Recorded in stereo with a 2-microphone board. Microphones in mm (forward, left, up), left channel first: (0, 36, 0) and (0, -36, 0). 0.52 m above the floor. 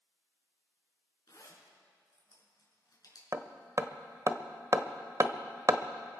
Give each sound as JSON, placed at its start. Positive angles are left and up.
{"t": 1.3, "sound": "a zipper", "side_deg": 65, "distance_m": 3.5}
{"t": 3.3, "sound": "hammering", "side_deg": -45, "distance_m": 0.7}